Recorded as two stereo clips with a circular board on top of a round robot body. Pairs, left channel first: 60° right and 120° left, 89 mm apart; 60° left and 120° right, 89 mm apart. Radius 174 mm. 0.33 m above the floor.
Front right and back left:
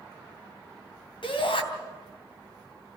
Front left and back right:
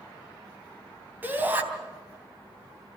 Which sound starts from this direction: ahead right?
A shout, at 1.2 s.